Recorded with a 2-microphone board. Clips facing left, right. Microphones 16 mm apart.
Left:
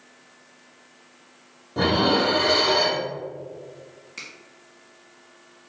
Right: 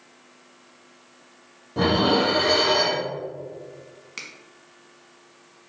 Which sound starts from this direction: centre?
Dishes clattering, at 1.8 s.